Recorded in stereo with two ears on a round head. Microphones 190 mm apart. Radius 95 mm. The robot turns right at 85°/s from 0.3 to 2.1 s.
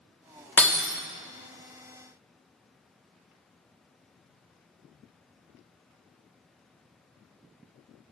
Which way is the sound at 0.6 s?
10° left (ahead or behind).